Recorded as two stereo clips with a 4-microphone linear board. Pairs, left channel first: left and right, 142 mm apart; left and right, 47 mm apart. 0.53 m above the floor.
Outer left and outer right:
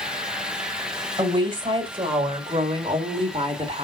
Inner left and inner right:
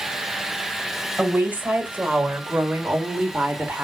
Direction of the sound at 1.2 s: 35° right (ahead or behind).